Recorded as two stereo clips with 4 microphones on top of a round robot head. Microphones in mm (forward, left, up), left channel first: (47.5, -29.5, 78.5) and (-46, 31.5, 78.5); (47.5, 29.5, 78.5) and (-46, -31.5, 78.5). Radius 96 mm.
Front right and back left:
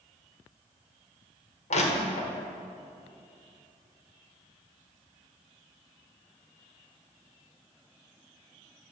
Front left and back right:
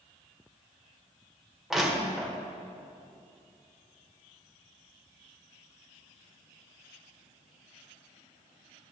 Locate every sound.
1.7 s crushing: 60° right, 1.6 m